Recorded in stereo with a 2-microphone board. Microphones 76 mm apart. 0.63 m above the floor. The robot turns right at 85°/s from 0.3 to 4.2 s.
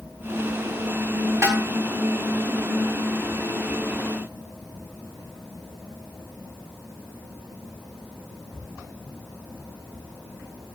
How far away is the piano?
No piano in this recording.